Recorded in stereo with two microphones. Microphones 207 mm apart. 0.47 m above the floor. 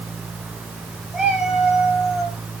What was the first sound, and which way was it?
A cat meowing, centre (ahead or behind).